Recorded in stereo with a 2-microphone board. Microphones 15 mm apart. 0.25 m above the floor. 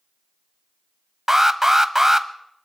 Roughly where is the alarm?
Right.